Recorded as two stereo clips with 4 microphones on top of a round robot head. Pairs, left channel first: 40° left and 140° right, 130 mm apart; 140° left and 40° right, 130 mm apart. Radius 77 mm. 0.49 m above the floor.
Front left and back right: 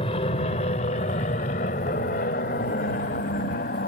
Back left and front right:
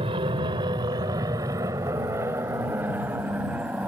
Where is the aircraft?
5° left; by 3.9 s 40° left.